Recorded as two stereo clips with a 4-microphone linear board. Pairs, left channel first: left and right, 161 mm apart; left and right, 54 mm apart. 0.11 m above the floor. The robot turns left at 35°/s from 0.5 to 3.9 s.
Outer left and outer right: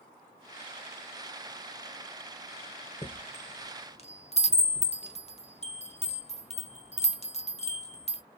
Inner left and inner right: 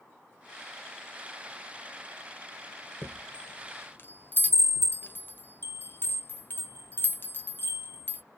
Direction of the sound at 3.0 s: 25° left (ahead or behind).